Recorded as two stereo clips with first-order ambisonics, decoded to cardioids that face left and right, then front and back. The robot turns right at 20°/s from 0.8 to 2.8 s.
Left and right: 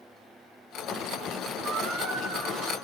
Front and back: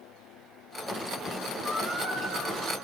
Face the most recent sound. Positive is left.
turn(degrees=-80)